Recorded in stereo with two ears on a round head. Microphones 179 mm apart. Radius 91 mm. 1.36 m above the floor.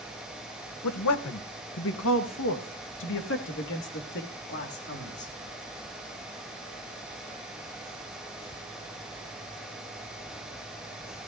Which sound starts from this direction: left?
A man speaking, at 0.8 s.